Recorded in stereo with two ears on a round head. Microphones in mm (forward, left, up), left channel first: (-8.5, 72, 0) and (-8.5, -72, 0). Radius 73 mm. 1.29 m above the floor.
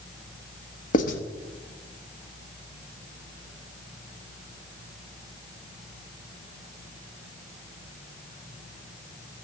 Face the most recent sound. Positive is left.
turn(degrees=55)  # may be behind; listen again after turning